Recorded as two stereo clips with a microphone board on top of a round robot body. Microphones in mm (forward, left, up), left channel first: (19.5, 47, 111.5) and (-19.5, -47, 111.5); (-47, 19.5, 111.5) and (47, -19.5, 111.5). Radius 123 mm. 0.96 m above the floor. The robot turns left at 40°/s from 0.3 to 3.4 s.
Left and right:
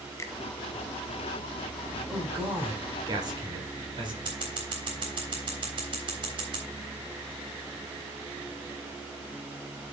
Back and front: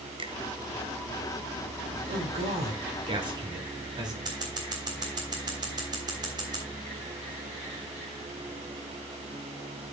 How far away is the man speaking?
About 4 m.